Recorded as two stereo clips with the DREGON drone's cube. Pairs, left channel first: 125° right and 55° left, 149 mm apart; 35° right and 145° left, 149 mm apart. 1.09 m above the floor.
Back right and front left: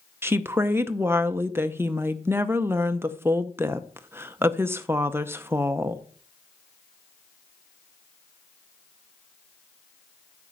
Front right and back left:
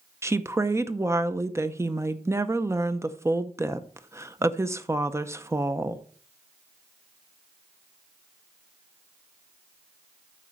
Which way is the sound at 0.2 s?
105° left.